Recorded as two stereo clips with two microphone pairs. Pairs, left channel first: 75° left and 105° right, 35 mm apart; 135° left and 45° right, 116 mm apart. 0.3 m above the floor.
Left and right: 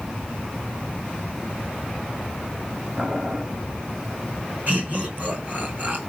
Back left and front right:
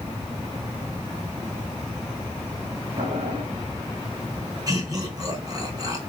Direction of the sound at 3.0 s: 30° right.